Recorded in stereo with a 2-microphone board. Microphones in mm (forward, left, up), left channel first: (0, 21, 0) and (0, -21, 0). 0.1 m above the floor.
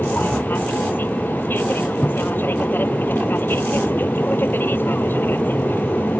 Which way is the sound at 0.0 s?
50° left (ahead or behind).